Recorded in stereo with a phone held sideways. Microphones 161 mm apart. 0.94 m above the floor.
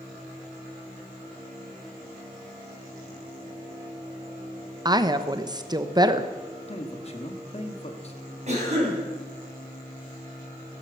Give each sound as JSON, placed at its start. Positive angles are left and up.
{"t": 4.8, "sound": "a woman speaking", "side_deg": -25, "distance_m": 0.9}
{"t": 6.7, "sound": "a man speaking", "side_deg": 40, "distance_m": 1.7}
{"t": 8.5, "sound": "a cough", "side_deg": -45, "distance_m": 7.0}